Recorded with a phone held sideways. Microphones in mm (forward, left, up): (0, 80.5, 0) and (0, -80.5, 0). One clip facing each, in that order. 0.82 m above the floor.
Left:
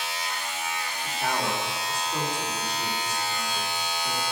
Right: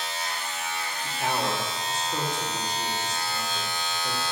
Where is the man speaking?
10° right (ahead or behind), 2.5 m.